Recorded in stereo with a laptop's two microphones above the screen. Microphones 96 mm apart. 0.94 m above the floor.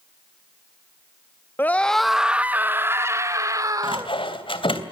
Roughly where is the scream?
Left.